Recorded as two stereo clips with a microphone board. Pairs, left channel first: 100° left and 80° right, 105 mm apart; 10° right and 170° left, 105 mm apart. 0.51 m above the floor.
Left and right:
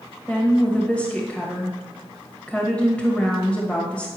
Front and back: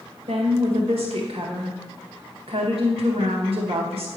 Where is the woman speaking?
Straight behind, 1.9 m.